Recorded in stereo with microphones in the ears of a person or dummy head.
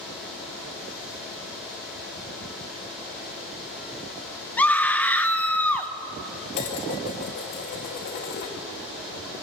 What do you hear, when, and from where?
4.6 s a scream: 15° left (ahead or behind), 1.5 m
6.5 s dishes clattering: 60° left (ahead or behind), 2.5 m